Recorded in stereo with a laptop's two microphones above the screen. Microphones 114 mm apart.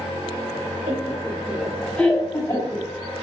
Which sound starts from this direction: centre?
Laughter, at 0.9 s.